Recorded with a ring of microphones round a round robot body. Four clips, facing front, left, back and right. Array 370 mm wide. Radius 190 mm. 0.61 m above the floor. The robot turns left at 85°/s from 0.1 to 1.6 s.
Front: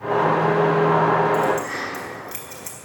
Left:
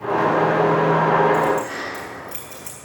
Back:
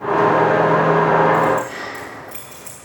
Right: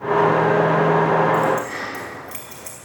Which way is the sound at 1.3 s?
Straight ahead.